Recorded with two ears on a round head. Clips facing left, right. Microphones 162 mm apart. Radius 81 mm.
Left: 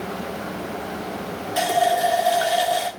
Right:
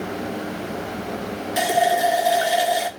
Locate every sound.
1.6 s a running tap: 20° right (ahead or behind), 1.6 m